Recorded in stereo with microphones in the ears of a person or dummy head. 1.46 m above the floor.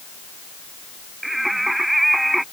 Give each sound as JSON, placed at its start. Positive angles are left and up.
{"t": 1.2, "sound": "singing", "side_deg": 0}